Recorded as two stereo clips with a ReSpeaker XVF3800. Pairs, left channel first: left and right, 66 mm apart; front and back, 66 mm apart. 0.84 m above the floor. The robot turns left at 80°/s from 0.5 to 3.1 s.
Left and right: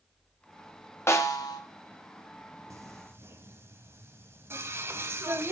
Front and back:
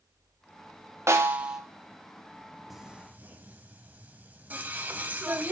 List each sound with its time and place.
1.1 s a snare drum: 135° left, 1.0 m; by 1.6 s 95° left, 1.0 m
2.7 s singing: 95° right, 0.9 m; by 5.5 s 125° right, 0.9 m